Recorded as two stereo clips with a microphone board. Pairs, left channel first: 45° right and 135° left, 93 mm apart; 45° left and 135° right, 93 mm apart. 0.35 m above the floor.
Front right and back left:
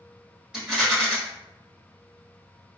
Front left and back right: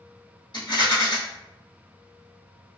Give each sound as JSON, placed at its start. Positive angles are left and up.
{"t": 0.5, "sound": "a rattle", "azimuth_deg": 55, "distance_m": 1.3}